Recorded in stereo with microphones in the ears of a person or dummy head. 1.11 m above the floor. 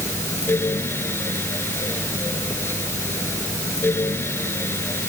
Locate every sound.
0.0 s a fan: 10° left (ahead or behind)